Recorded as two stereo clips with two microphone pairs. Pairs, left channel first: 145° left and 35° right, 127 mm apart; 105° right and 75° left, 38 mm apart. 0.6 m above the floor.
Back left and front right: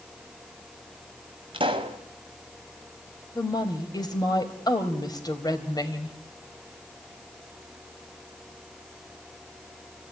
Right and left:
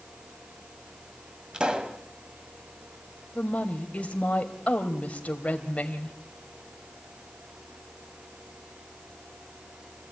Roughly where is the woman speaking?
Behind right.